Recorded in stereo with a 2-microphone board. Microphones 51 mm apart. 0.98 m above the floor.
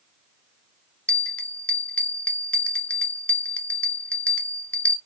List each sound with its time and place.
1.1 s a bell: 25° left (ahead or behind), 0.6 m